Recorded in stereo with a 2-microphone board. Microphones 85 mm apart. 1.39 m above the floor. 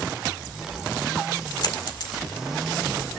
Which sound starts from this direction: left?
A dropped coin, at 1.6 s.